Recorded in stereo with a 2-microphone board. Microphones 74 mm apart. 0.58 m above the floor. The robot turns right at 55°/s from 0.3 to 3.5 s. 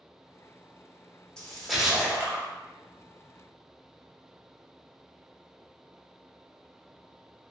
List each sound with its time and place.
1.4 s a splash: 165° left, 0.7 m; by 2.5 s 135° right, 0.7 m